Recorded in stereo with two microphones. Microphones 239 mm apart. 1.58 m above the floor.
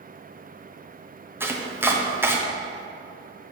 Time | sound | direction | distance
1.4 | chopping | 10° right (ahead or behind) | 0.8 m